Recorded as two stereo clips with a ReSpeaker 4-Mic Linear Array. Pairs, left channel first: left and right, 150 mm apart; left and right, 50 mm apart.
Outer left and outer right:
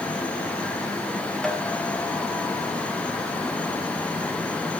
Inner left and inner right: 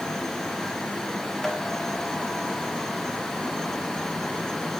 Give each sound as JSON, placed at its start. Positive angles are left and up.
{"t": 1.4, "sound": "tapping", "side_deg": 5, "distance_m": 4.0}